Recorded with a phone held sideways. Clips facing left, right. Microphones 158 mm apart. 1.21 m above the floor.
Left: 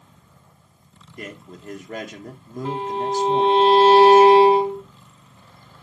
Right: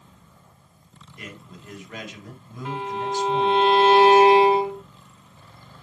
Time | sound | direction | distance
1.2 | a man speaking | 45° left (ahead or behind) | 1.3 m
2.6 | a violin | 30° left (ahead or behind) | 1.1 m